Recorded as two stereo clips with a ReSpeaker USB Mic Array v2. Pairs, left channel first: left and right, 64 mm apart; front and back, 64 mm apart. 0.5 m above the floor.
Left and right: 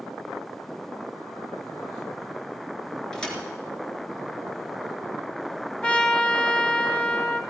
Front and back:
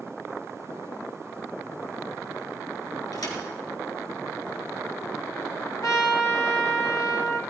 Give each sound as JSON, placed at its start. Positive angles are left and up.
{"t": 3.1, "sound": "a thud", "azimuth_deg": 10, "distance_m": 3.5}
{"t": 5.8, "sound": "a trumpet", "azimuth_deg": 20, "distance_m": 1.8}